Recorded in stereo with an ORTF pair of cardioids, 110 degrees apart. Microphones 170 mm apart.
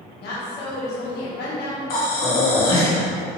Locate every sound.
0.2 s a woman speaking: 70° left, 1.4 m
1.9 s breathing: 60° left, 1.2 m